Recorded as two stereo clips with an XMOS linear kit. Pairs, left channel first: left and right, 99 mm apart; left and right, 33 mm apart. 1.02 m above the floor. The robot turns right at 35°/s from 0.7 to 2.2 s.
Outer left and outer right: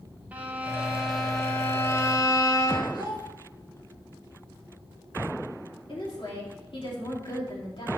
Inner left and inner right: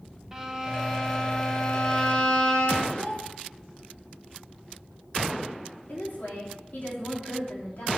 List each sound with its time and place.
0.3 s a violin: 15° right, 0.9 m; by 2.8 s 35° left, 0.9 m
2.9 s a child speaking: 45° left (ahead or behind), 1.7 m
5.9 s a woman speaking: 55° left (ahead or behind), 3 m